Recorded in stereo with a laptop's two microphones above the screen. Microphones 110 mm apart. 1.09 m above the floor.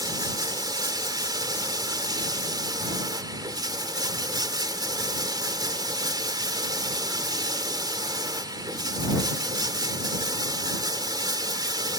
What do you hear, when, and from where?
0.0 s running water: 40° right (ahead or behind)